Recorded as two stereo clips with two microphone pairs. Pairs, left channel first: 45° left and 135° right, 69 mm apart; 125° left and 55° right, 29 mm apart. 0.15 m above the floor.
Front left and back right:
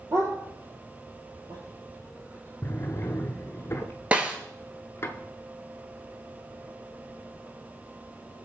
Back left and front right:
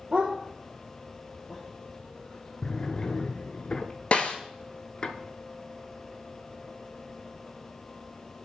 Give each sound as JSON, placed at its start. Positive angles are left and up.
{"t": 0.1, "sound": "a dog barking", "azimuth_deg": -90, "distance_m": 1.4}
{"t": 2.6, "sound": "a drawer", "azimuth_deg": 85, "distance_m": 0.7}
{"t": 4.1, "sound": "a snare drum", "azimuth_deg": 160, "distance_m": 1.0}